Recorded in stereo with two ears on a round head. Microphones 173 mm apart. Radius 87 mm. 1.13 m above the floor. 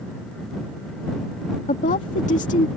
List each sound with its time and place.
1.7 s a woman speaking: 40° left (ahead or behind)